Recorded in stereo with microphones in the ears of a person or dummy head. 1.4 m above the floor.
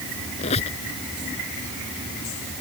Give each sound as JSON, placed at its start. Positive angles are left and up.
{"t": 0.4, "sound": "a squeak", "side_deg": 35}